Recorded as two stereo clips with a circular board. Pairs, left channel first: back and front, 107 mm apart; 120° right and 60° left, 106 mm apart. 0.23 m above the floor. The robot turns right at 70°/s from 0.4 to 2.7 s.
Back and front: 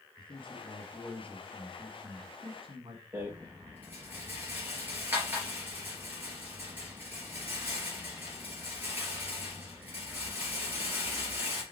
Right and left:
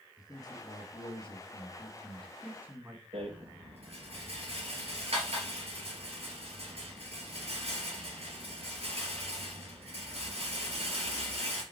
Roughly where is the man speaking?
Behind.